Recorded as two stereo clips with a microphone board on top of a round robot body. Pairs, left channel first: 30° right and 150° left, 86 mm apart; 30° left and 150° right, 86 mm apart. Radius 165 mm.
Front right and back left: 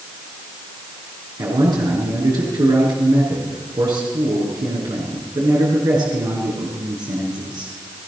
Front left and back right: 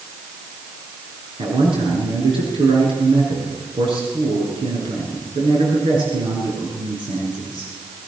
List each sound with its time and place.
1.4 s a man speaking: 170° right, 8.5 m